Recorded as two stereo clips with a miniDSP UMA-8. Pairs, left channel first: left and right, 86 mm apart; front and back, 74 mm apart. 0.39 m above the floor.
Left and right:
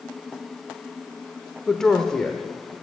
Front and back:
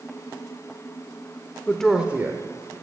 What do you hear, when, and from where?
1.7 s a woman speaking: 15° left, 0.8 m; by 2.7 s 170° left, 1.2 m